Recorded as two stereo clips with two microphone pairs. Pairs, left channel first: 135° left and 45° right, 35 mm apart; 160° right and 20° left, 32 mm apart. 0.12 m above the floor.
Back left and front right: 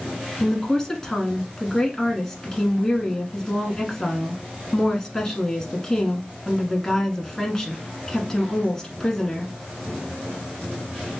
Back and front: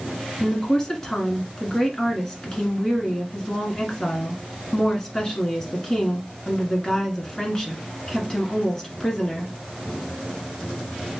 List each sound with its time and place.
0.4 s a woman speaking: 170° right, 1.2 m